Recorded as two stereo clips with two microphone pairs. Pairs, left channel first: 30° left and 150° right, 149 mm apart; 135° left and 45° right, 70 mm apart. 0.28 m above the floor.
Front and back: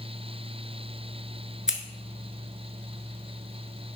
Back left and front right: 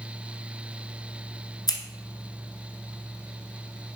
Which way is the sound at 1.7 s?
125° left.